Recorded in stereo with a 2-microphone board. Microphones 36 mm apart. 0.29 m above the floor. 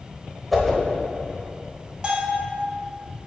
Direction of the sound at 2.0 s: 25° right (ahead or behind).